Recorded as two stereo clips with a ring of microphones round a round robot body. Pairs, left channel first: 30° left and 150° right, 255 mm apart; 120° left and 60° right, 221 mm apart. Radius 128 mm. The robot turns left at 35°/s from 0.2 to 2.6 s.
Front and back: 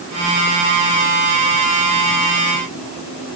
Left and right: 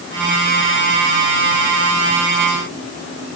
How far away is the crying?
I don't hear crying.